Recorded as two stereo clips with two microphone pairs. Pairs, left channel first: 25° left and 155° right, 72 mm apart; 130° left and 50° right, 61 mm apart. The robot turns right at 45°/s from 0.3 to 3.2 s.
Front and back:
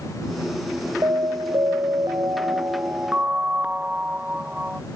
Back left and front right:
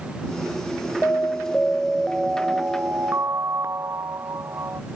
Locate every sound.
1.0 s an alarm: straight behind; by 4.8 s 85° right